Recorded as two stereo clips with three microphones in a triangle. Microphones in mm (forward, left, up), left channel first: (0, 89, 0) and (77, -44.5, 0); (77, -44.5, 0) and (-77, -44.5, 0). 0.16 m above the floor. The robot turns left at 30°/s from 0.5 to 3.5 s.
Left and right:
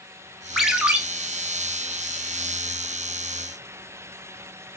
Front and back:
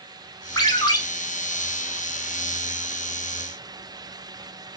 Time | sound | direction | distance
0.6 | a ringtone | 25° left | 0.5 m